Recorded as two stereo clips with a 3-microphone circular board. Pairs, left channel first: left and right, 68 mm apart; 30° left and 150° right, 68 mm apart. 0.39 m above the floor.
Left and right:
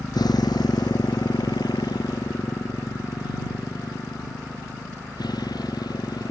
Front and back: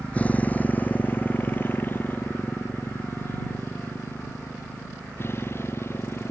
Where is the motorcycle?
100° left; by 6.3 s 80° left.